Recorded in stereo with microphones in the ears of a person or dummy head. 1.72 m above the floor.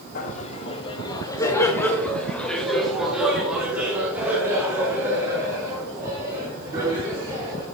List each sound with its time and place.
0.1 s laughter: 50° left (ahead or behind), 1.2 m; by 7.6 s 25° right (ahead or behind), 4 m